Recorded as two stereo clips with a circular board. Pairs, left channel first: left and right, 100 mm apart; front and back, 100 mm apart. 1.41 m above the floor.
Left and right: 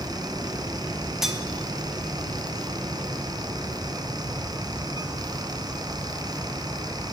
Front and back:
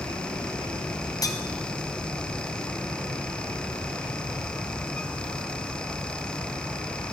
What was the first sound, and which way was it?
Cutlery clinking, 5° right.